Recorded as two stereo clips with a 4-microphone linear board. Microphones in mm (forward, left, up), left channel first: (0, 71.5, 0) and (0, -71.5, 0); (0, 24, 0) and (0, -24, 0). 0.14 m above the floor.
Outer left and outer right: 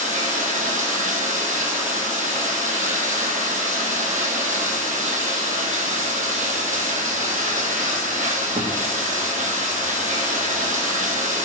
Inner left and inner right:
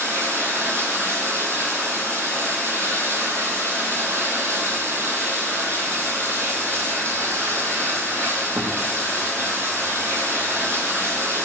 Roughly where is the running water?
Right.